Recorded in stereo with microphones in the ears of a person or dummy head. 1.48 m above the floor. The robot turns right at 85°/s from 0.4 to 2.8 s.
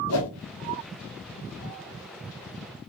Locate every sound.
0.1 s a whoosh: 70° left (ahead or behind), 0.9 m